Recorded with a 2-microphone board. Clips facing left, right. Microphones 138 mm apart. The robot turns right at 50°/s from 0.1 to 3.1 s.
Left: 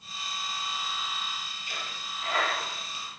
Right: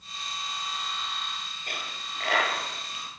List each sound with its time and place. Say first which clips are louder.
1.7 s a dropped coin: right 2 dB; 55° right (ahead or behind), 9.5 m